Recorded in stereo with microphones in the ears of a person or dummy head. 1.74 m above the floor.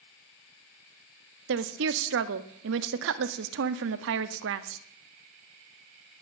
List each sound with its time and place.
1.5 s a woman speaking: 65° right (ahead or behind), 0.5 m